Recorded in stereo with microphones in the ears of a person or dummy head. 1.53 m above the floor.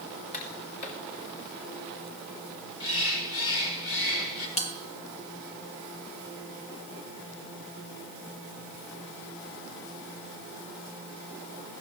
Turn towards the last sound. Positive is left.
turn(degrees=35)  # may be behind; listen again after turning